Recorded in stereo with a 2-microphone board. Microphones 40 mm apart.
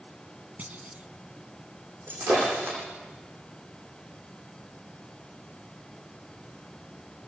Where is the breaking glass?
60° right (ahead or behind), 9.5 m.